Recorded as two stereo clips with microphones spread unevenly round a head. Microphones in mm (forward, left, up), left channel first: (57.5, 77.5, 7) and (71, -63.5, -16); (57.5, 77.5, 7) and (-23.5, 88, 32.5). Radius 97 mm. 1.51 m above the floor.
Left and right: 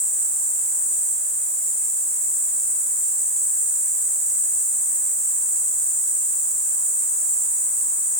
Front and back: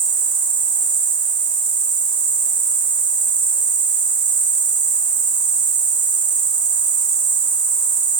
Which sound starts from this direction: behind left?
An insect, at 0.0 s.